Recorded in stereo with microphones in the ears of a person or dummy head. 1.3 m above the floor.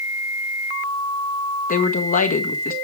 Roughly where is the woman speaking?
Left.